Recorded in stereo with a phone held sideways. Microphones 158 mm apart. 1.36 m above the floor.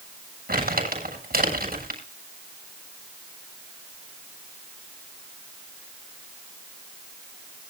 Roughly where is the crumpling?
Right.